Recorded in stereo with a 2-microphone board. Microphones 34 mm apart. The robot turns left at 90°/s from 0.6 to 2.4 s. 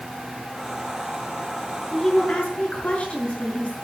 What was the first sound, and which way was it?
A woman speaking, 175° right.